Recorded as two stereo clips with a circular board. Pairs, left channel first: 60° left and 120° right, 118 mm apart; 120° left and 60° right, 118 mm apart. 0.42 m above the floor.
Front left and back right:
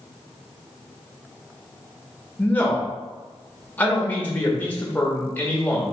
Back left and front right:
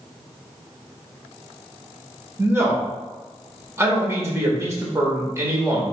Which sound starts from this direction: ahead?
A man speaking, at 2.4 s.